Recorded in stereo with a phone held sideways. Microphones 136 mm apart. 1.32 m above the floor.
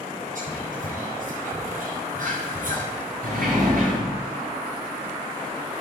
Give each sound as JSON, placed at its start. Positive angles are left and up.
{"t": 0.3, "sound": "whispering", "side_deg": -75, "distance_m": 8.5}
{"t": 3.2, "sound": "a sliding door", "side_deg": -80, "distance_m": 7.5}